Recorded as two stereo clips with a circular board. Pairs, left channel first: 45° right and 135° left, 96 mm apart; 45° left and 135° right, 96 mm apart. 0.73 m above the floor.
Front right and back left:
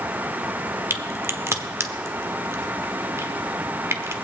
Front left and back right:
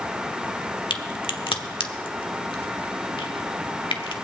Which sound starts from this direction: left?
A crack, at 0.9 s.